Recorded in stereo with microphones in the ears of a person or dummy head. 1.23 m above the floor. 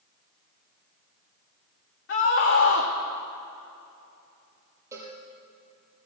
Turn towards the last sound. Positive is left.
turn(degrees=-20)  # may be behind; listen again after turning